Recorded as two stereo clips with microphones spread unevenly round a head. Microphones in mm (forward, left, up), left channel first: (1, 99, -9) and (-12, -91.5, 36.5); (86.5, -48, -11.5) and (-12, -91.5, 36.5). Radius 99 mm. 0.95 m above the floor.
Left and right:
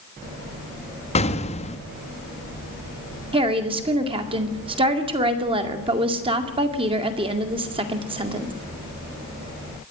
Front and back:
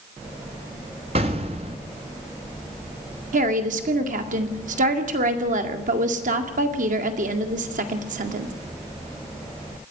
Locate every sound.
1.1 s an explosion: 140° left, 1.2 m
3.3 s a woman speaking: 160° right, 2.5 m